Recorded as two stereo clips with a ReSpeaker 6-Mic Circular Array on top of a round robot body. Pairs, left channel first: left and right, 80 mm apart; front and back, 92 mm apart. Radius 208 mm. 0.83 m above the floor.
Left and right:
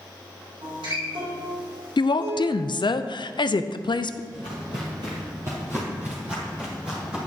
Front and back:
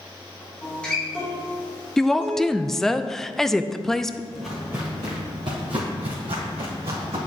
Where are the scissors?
No scissors in this recording.